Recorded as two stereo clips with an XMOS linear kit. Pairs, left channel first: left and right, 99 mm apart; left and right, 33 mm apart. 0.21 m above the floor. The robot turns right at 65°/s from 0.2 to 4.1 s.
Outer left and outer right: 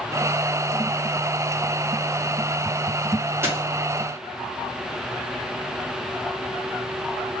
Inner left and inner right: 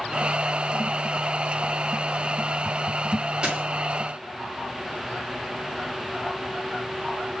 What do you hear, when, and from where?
3.4 s a dropped coin: 25° right (ahead or behind), 2 m; by 3.6 s 35° right (ahead or behind), 2 m